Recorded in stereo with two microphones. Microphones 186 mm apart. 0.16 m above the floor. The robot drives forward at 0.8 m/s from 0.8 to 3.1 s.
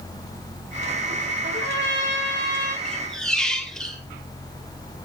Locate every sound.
1.4 s a trumpet: 80° right, 3.5 m; by 2.8 s 65° right (ahead or behind), 3.5 m
2.9 s a squeak: 5° left (ahead or behind), 2.5 m